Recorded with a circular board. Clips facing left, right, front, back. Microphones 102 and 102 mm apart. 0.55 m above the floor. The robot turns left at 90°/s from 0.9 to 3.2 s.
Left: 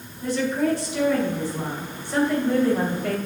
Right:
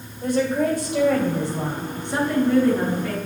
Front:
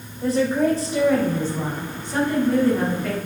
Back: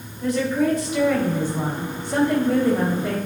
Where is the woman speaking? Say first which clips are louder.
Right 2 dB, front 1 dB; 55° right, 2.5 m; by 3.2 s 105° left, 2.5 m.